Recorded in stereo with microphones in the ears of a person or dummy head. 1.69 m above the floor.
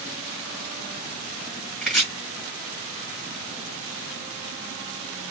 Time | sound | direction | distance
1.8 | chopping | centre (ahead or behind) | 1.3 m